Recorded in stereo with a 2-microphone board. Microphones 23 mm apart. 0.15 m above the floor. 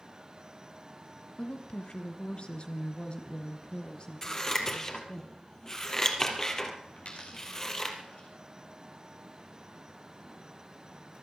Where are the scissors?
25° left (ahead or behind), 2.5 m.